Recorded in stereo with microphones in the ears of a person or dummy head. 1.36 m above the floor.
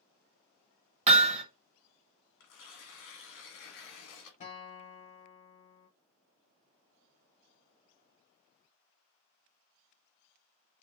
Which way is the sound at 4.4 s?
35° left (ahead or behind).